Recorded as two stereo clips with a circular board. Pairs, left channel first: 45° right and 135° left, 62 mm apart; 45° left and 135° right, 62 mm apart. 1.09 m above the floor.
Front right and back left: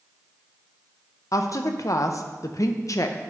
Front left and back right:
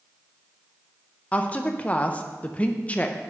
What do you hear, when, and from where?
1.3 s a woman speaking: 20° right, 0.6 m